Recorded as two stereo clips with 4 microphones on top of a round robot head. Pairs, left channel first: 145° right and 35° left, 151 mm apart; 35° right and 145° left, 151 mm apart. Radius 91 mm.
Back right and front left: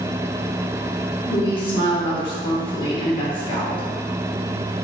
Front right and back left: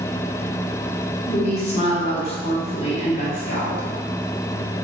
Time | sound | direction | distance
1.3 | a woman speaking | 85° right | 1.6 m